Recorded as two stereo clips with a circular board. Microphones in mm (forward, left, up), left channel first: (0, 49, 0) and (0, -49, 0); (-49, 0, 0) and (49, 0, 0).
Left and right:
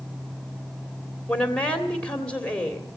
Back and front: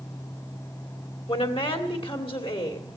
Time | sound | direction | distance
1.3 | a woman speaking | 170° left | 2.5 m